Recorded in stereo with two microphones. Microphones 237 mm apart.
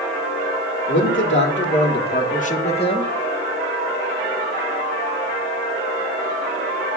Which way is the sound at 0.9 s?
55° left (ahead or behind).